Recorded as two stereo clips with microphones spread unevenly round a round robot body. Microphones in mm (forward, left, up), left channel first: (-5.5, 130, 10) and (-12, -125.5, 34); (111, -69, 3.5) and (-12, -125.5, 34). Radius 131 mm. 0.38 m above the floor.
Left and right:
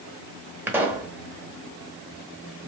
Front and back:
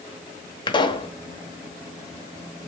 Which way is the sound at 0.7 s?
5° right.